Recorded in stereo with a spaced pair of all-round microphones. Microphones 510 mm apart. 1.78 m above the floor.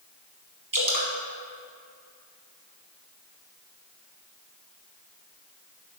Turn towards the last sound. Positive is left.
turn(degrees=-35)  # may be behind; listen again after turning